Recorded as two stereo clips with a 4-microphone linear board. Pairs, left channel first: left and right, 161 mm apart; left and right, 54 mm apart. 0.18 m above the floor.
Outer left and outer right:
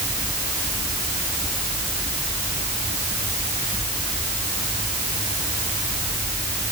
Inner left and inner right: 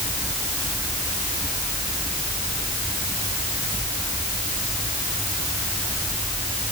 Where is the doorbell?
I don't hear a doorbell.